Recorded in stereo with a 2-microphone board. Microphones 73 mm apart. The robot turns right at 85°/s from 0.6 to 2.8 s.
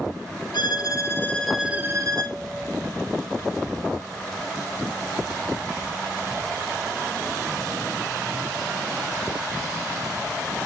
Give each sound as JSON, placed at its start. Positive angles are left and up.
{"t": 0.5, "sound": "a violin", "azimuth_deg": 105, "distance_m": 1.0}